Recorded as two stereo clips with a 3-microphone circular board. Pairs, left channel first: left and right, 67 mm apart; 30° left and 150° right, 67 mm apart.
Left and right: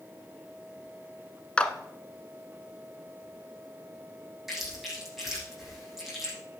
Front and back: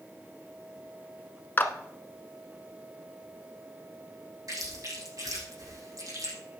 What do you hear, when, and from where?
1.6 s a clap: 35° left, 1.1 m
4.5 s chewing: 175° right, 7.5 m